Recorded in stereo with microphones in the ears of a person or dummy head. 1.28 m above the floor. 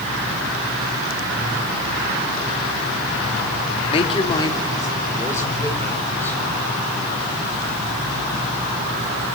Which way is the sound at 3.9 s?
35° left (ahead or behind).